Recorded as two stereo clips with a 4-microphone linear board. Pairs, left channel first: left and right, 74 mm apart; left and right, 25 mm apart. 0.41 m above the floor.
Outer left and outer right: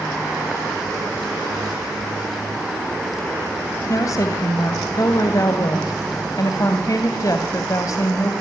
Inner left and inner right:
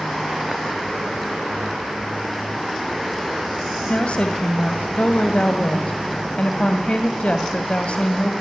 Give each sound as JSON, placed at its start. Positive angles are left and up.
{"t": 3.9, "sound": "a woman speaking", "side_deg": 50, "distance_m": 2.5}